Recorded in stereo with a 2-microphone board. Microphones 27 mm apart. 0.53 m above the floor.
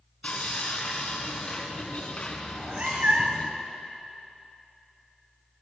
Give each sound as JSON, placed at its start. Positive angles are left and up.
{"t": 0.2, "sound": "sawing", "side_deg": 55, "distance_m": 2.0}
{"t": 2.5, "sound": "a cat meowing", "side_deg": -60, "distance_m": 1.4}